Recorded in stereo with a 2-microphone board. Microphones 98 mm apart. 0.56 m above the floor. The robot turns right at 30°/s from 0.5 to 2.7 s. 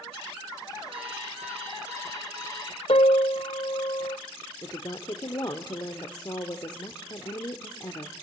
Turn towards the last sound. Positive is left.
turn(degrees=45)  # may be behind; listen again after turning